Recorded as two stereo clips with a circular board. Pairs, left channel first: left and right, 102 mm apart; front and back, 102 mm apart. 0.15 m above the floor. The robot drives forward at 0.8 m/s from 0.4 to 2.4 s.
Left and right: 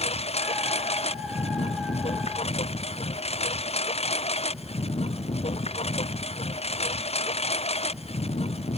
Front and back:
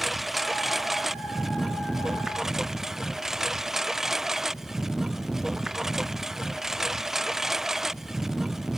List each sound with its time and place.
0.0 s a lawn mower: 90° left; by 8.8 s 95° left